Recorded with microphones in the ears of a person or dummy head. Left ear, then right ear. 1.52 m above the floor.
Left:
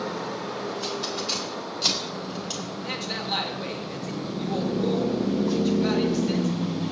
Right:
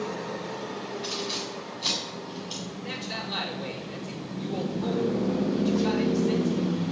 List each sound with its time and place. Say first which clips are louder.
1.0 s keys jangling: right 1 dB; 65° left (ahead or behind), 5 m; by 2.7 s 55° left (ahead or behind), 5.5 m
2.8 s a man speaking: left 4 dB; 35° left (ahead or behind), 3 m